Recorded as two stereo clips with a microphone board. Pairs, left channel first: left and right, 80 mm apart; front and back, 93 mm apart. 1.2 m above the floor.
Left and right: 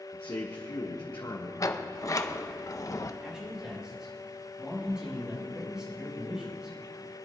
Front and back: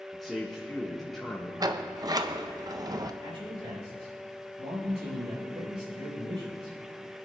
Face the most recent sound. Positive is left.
turn(degrees=-170)